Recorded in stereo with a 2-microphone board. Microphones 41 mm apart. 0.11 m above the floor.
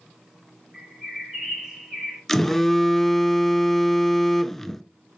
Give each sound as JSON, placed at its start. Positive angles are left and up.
{"t": 0.7, "sound": "a bird", "side_deg": -5, "distance_m": 5.0}
{"t": 2.3, "sound": "a phone buzzing", "side_deg": 10, "distance_m": 0.5}